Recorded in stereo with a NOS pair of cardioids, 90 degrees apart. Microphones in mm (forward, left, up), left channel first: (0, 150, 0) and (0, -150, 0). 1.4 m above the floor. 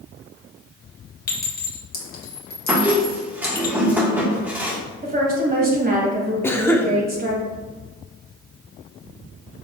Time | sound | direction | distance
1.3 | a clink | 30° left | 1.4 m
2.7 | a squeak | 5° right | 1.4 m
5.0 | a woman speaking | 30° right | 1.8 m
6.4 | a cough | 10° left | 0.8 m